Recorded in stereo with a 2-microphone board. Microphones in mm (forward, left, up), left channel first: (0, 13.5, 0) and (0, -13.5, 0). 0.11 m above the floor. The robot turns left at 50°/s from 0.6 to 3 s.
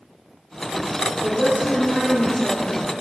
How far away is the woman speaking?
About 2.5 m.